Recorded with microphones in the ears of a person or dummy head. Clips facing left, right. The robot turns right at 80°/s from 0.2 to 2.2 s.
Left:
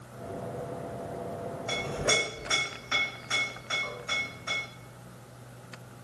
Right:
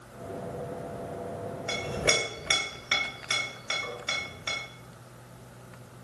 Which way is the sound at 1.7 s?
15° right (ahead or behind).